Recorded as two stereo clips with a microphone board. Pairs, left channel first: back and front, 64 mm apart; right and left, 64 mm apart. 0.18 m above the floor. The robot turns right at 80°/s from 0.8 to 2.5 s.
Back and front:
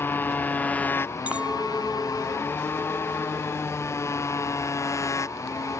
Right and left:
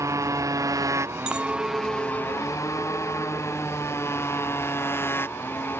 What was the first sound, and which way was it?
A motorcycle, 125° left.